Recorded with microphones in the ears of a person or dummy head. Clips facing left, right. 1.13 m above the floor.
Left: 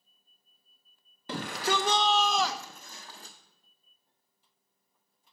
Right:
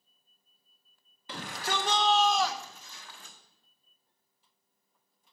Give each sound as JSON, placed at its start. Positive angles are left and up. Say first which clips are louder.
{"t": 1.3, "sound": "a shout", "louder": "left 5 dB", "side_deg": 35, "distance_m": 0.7}